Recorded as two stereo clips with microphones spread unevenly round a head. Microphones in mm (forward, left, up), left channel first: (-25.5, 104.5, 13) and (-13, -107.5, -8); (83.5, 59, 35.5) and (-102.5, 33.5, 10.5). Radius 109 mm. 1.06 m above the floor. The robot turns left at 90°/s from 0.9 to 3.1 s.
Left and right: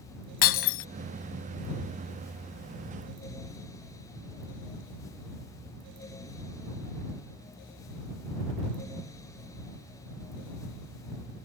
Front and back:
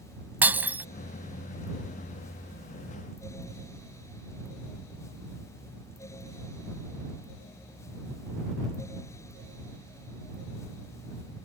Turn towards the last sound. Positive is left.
turn(degrees=-95)